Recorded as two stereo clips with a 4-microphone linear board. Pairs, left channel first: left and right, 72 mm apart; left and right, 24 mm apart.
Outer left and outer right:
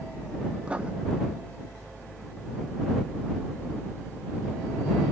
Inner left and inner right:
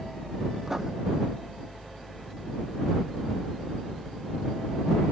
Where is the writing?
15° right (ahead or behind).